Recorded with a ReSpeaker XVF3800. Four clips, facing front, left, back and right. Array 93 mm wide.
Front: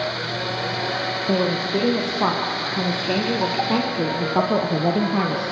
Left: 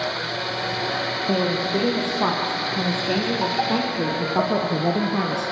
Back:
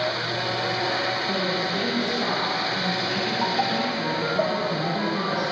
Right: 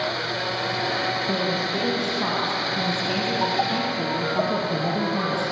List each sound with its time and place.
1.3 s a woman speaking: 35° left, 4.5 m; by 5.5 s 20° left, 2.5 m